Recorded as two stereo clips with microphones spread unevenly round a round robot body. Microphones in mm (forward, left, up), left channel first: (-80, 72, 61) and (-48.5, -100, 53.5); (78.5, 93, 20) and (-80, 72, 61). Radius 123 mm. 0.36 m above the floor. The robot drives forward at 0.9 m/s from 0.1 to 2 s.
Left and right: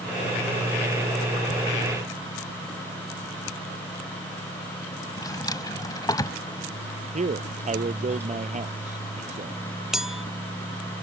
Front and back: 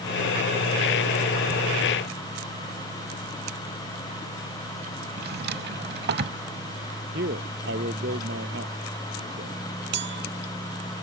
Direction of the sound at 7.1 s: 130° right.